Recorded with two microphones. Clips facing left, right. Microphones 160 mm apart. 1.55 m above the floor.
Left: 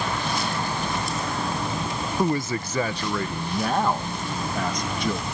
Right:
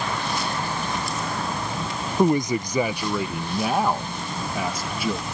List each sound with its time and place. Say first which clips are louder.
2.2 s a man speaking: right 5 dB; 20° right (ahead or behind); by 5.3 s 5° right (ahead or behind)